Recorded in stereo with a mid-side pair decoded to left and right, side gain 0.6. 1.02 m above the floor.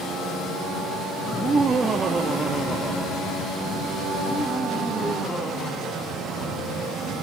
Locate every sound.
1.3 s laughter: 40° right, 1.8 m; by 6.6 s 20° left, 3.5 m